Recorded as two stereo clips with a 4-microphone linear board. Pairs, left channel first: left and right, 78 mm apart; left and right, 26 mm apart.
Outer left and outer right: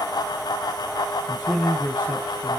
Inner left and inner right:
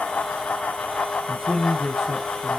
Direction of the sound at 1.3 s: 15° left (ahead or behind).